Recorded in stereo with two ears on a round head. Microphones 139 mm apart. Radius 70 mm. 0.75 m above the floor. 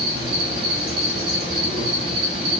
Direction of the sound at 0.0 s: 35° right (ahead or behind).